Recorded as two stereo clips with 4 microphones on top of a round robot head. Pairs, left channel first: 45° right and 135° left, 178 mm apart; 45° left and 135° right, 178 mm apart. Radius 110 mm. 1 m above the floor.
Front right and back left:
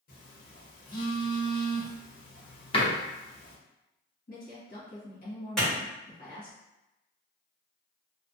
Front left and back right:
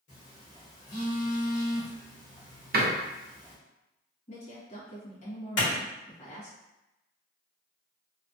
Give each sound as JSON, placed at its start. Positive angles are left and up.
{"t": 0.1, "sound": "a phone buzzing", "azimuth_deg": -5, "distance_m": 1.3}
{"t": 2.7, "sound": "a door slam", "azimuth_deg": -105, "distance_m": 0.7}
{"t": 4.3, "sound": "a woman speaking", "azimuth_deg": -5, "distance_m": 1.7}
{"t": 5.6, "sound": "a clap", "azimuth_deg": 45, "distance_m": 1.4}